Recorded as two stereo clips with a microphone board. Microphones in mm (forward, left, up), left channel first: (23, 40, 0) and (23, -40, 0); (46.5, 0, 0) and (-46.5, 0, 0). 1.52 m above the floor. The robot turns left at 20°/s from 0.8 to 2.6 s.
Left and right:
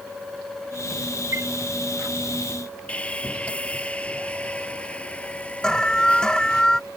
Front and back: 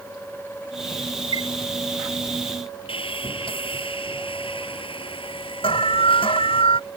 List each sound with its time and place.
1.3 s a chime: 145° right; by 1.5 s 150° right
2.9 s sawing: 15° left
5.6 s an alarm: 10° left